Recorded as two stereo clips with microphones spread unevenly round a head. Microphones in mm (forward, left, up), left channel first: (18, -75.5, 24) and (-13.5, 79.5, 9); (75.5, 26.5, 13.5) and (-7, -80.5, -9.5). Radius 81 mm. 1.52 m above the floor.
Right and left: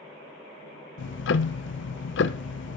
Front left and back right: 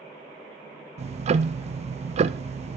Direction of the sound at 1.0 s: 90° right.